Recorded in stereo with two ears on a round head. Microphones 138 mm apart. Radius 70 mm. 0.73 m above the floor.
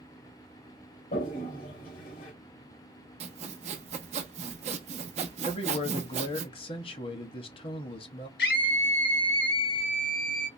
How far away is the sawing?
About 0.8 m.